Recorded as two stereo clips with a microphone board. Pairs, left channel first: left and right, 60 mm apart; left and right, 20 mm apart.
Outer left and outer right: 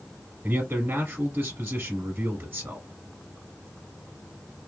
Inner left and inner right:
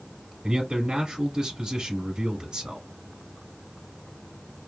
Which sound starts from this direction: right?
A man speaking, at 0.4 s.